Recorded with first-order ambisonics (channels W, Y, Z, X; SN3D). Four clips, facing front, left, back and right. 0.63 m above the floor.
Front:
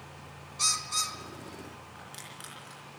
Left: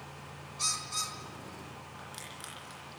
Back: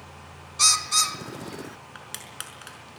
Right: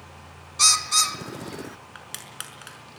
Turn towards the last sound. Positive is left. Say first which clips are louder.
# right 6 dB, back 7 dB
turn(degrees=-130)